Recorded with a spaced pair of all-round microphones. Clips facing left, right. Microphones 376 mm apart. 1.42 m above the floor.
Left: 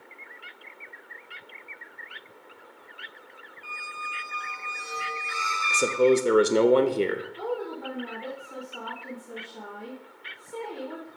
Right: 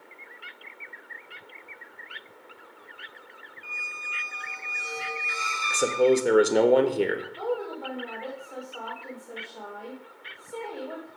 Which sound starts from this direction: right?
A squeak, at 3.6 s.